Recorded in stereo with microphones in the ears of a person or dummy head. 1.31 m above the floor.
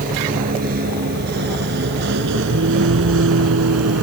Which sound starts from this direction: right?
A vehicle, at 0.0 s.